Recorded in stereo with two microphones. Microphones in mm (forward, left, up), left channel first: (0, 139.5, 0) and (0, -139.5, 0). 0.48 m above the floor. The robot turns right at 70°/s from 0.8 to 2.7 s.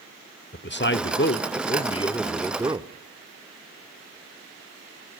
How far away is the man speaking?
About 1.0 m.